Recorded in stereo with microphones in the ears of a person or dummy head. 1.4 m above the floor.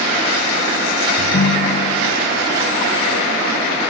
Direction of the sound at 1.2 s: 45° left (ahead or behind).